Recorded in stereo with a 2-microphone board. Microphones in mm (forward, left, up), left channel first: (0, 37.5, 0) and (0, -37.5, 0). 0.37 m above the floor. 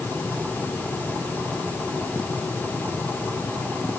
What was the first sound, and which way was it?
Only background noise.